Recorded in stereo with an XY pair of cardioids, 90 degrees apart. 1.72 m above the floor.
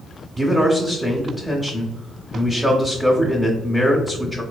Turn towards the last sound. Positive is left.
turn(degrees=0)